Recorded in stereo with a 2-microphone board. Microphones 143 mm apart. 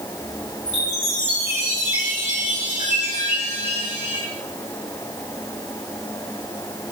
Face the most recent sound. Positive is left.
turn(degrees=55)  # may be behind; listen again after turning